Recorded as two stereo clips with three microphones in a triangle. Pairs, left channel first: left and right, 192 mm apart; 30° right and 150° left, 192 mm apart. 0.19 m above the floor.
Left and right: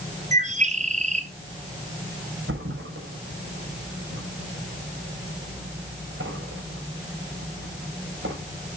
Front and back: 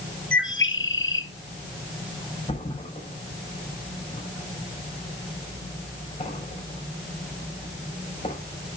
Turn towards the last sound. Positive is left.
turn(degrees=-90)